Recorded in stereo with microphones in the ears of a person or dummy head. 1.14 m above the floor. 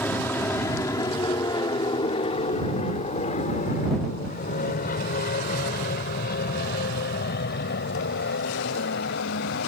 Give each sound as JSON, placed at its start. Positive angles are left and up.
{"t": 0.0, "sound": "an aircraft", "side_deg": 10}